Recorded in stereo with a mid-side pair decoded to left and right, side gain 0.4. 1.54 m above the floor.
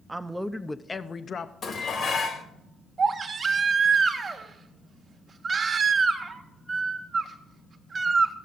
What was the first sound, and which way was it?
A man speaking, 25° right.